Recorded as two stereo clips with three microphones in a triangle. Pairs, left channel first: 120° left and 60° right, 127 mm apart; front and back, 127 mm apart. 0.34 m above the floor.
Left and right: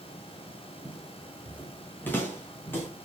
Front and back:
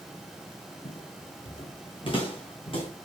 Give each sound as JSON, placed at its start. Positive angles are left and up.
{"t": 0.8, "sound": "footsteps", "azimuth_deg": 40, "distance_m": 3.0}